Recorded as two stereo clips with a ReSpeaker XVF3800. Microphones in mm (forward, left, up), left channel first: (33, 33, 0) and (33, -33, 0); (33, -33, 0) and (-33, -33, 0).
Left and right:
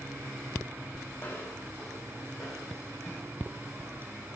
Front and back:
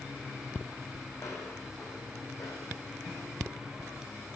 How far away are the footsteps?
About 2.5 m.